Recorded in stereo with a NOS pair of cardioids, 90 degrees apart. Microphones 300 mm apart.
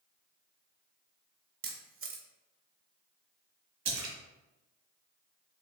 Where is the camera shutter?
45° right, 0.9 m.